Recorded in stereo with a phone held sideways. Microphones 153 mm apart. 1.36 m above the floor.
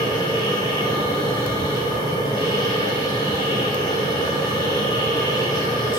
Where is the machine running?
30° left (ahead or behind), 5 m.